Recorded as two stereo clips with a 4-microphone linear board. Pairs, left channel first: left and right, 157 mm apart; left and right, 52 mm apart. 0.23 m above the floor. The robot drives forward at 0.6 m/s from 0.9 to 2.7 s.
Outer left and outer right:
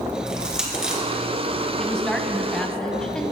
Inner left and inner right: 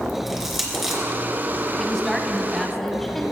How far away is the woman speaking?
About 1.8 m.